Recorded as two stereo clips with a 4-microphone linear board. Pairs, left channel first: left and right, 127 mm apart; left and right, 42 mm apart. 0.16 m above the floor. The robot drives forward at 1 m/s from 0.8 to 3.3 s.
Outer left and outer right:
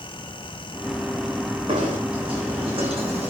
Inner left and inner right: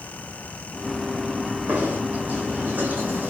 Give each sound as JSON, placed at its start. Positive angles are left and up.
{"t": 1.7, "sound": "knocking", "side_deg": -40, "distance_m": 7.0}